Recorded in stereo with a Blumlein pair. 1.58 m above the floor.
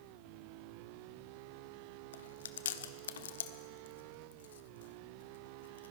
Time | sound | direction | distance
2.1 | chewing | 60° left | 0.7 m